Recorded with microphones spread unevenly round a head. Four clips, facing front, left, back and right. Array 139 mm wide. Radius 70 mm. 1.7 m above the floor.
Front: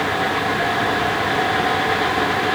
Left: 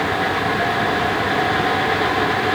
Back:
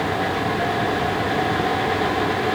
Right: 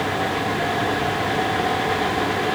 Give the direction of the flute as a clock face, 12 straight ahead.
I don't hear a flute.